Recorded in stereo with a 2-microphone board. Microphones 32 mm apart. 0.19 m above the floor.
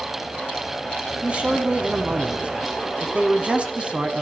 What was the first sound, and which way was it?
A man speaking, 35° right (ahead or behind).